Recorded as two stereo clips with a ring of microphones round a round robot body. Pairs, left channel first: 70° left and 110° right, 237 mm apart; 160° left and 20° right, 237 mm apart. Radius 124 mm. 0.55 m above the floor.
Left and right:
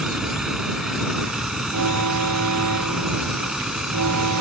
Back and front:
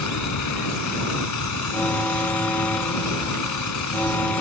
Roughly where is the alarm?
Behind right.